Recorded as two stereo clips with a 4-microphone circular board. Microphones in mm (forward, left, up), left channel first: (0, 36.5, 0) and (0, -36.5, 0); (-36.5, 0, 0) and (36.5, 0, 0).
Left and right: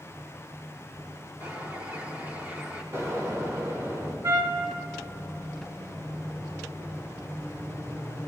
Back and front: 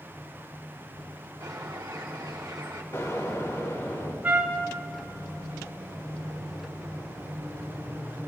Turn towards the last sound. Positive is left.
turn(degrees=-65)